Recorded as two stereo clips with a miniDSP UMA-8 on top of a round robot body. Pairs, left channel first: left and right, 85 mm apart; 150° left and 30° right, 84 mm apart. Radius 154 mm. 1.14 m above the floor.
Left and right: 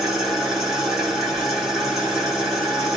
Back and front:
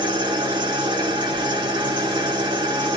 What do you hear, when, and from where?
0.0 s an engine running: 5° right, 1.8 m